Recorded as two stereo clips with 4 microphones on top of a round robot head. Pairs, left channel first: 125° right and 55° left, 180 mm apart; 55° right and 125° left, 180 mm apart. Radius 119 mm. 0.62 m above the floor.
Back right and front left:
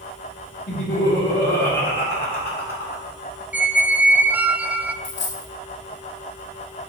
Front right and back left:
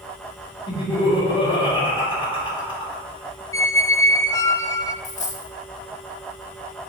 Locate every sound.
0.7 s laughter: 115° right, 2.5 m
3.5 s a squeak: 15° right, 0.5 m
5.0 s a dropped coin: 105° right, 0.8 m